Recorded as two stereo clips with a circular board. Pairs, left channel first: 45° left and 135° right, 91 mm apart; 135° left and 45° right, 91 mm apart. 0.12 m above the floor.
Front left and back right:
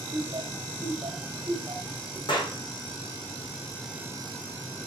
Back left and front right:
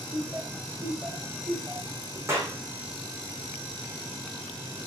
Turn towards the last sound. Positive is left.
turn(degrees=15)